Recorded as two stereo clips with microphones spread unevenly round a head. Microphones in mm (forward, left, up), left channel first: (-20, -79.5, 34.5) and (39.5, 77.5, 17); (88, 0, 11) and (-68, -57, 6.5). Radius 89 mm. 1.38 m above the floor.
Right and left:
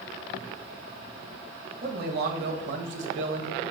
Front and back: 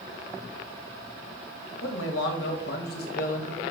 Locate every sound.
1.8 s a man speaking: 35° left, 1.8 m; by 3.6 s 75° left, 1.8 m